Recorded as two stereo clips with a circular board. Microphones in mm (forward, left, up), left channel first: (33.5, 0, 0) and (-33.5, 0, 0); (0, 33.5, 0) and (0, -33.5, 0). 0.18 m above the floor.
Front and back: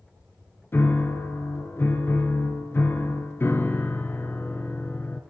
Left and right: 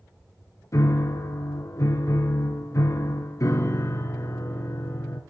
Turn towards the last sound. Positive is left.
turn(degrees=55)